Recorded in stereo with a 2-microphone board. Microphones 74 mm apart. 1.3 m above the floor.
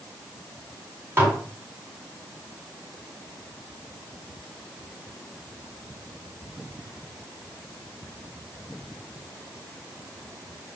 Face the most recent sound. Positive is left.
turn(degrees=-30)  # may be behind; listen again after turning